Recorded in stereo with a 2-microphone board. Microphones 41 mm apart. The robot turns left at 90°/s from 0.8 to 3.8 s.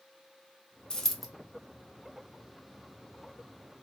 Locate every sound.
0.9 s a dropped coin: 25° left (ahead or behind), 0.7 m; by 1.3 s 5° right (ahead or behind), 0.7 m